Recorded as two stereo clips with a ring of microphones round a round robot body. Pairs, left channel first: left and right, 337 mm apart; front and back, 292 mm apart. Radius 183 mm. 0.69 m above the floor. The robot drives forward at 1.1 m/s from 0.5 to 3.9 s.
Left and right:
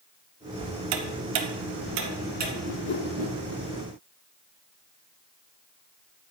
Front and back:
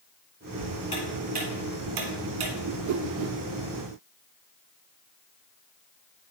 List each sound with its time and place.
0.9 s ticking: 70° right, 0.8 m; by 2.5 s 155° right, 1.7 m
2.7 s a whoosh: 130° left, 0.5 m; by 3.4 s 165° left, 1.2 m